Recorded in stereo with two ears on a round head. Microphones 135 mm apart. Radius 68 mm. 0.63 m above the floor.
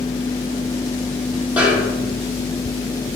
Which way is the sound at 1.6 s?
10° right (ahead or behind).